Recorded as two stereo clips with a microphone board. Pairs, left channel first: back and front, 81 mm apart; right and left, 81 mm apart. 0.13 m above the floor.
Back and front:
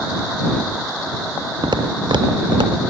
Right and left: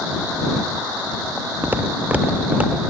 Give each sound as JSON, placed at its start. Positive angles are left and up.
{"t": 1.6, "sound": "footsteps", "azimuth_deg": 25}